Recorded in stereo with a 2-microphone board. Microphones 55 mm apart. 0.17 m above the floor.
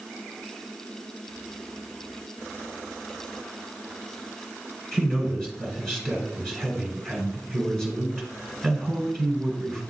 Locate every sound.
4.9 s a man speaking: 10° left (ahead or behind), 1.7 m